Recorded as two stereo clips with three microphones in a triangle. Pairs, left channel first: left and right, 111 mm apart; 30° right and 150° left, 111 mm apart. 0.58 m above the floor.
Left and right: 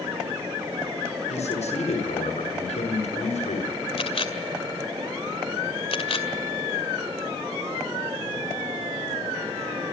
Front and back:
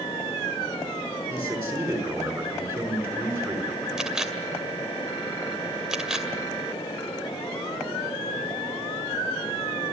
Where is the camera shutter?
65° left, 2 m.